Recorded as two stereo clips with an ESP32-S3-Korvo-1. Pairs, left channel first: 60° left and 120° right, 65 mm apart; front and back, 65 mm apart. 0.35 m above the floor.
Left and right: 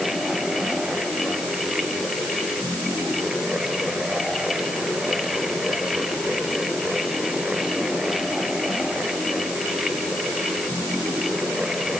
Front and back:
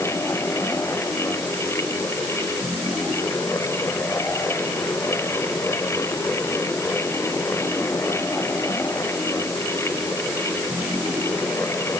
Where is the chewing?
I don't hear chewing.